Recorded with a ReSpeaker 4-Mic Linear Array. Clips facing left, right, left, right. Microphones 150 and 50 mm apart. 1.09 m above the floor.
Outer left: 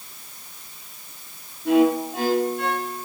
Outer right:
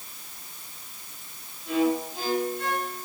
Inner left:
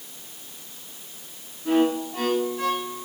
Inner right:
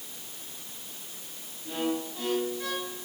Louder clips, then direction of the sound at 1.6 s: Outer left 7 dB, inner left 10 dB; 70° left (ahead or behind).